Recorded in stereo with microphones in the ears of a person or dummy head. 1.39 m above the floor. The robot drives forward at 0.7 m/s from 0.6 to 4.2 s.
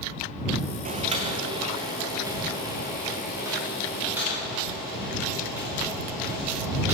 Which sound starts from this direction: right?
Boiling, at 0.8 s.